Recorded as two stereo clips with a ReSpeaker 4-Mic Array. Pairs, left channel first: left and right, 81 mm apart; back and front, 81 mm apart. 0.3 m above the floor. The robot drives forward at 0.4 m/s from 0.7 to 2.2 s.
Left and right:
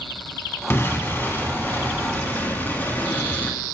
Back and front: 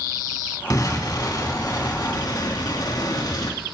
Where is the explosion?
145° left, 2.5 m; by 3.6 s 155° left, 3 m.